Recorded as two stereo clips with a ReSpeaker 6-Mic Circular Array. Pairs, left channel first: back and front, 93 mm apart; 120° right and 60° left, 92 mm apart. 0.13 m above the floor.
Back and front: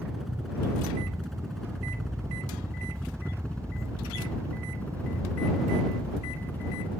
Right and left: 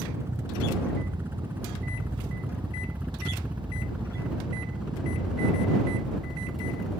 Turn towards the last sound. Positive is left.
turn(degrees=150)